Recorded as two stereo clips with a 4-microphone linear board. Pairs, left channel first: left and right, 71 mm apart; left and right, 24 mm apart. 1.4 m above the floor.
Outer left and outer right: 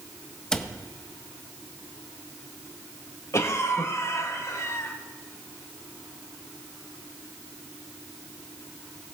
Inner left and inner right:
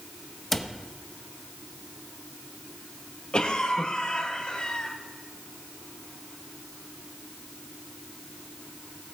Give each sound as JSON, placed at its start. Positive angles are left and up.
{"t": 0.5, "sound": "a cupboard door", "side_deg": 10, "distance_m": 0.9}
{"t": 3.3, "sound": "a cough", "side_deg": 45, "distance_m": 2.0}